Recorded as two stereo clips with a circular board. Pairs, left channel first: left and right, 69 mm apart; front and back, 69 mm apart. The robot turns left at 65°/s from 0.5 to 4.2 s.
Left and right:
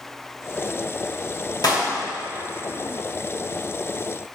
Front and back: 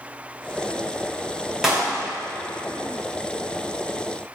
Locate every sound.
1.6 s a clap: 95° left, 3 m; by 1.9 s 75° left, 3 m